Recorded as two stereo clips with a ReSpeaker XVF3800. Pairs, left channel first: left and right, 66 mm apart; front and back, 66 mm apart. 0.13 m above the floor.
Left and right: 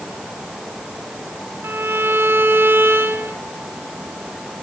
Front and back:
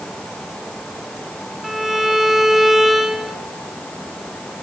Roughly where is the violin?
Right.